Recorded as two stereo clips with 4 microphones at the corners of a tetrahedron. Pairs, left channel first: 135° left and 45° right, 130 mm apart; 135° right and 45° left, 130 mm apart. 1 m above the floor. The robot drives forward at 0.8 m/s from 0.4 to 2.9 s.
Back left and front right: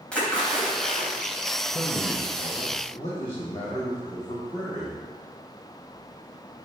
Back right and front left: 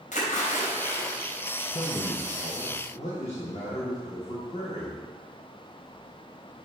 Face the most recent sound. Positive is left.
turn(degrees=-175)